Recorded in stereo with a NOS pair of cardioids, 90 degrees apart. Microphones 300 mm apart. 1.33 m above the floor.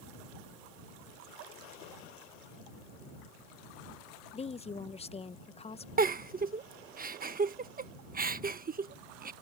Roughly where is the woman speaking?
Ahead.